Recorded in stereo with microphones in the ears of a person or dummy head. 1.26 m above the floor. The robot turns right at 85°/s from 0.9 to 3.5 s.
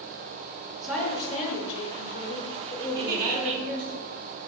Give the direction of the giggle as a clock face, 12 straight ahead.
3 o'clock.